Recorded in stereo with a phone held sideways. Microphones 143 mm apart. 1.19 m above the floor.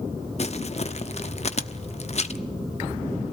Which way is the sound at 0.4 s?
50° left (ahead or behind).